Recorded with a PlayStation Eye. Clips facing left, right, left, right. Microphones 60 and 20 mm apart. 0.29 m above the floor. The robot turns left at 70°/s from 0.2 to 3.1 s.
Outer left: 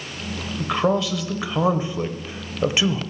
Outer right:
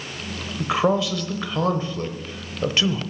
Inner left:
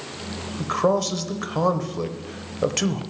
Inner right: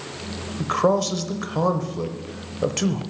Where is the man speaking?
10° right (ahead or behind), 0.9 m; by 3.0 s 10° left (ahead or behind), 0.9 m.